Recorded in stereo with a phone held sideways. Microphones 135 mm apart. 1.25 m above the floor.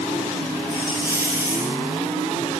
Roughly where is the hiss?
Centre.